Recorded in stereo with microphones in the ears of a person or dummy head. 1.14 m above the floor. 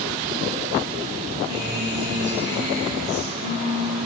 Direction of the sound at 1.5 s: 35° left (ahead or behind).